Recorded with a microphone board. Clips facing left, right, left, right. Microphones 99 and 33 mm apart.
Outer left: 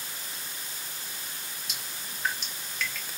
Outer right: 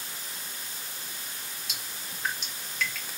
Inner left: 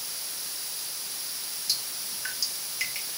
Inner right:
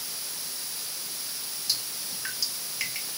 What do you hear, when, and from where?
1.7 s dripping: centre (ahead or behind), 1.9 m